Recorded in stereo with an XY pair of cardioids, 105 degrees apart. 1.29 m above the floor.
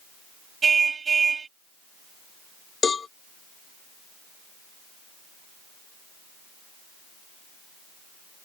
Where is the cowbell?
40° left.